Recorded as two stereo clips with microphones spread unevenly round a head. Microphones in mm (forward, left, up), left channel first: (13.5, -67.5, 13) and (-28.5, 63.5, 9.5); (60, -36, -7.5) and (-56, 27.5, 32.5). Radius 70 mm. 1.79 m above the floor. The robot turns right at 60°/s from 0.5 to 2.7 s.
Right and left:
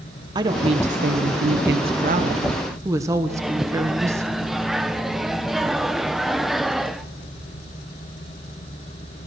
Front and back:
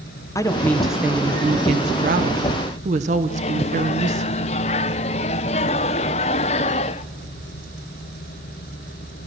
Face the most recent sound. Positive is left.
turn(degrees=20)